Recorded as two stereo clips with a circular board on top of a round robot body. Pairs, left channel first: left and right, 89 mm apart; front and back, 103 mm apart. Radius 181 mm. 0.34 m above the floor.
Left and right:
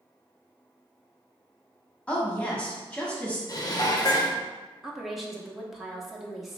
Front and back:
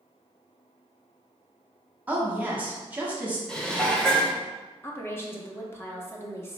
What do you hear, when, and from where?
2.1 s a woman speaking: 140° left, 1.3 m
3.5 s dishes clattering: 80° left, 0.9 m
4.8 s a woman speaking: 5° right, 1.0 m